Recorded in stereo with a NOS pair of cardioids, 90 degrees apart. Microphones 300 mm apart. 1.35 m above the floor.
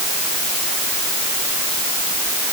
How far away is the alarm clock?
I don't hear an alarm clock.